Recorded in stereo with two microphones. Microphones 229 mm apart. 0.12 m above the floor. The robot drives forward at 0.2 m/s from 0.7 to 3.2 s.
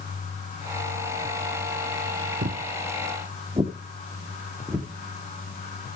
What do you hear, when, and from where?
2.4 s footsteps: 55° right (ahead or behind), 0.7 m; by 4.9 s 10° right (ahead or behind), 1.8 m